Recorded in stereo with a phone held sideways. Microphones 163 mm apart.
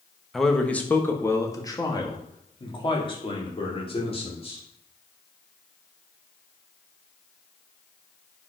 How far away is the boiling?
I don't hear boiling.